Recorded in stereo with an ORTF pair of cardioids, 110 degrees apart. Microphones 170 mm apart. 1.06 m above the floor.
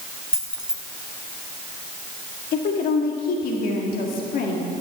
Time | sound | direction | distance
0.3 | keys jangling | 5° right | 1.8 m
2.5 | a woman speaking | 65° left | 1.9 m